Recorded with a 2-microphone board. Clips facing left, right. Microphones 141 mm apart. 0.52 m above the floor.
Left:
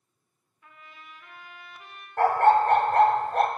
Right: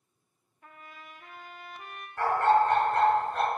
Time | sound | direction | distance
0.6 | a trumpet | 45° right (ahead or behind) | 0.6 m
2.2 | a dog barking | 55° left (ahead or behind) | 0.7 m